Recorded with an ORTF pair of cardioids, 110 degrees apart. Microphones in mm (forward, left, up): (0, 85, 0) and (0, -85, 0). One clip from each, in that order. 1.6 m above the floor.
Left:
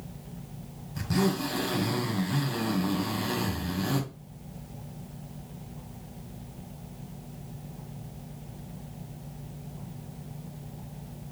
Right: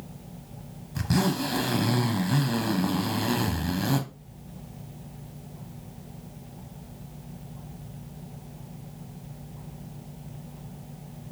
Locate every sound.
0.9 s a zipper: 30° right, 0.9 m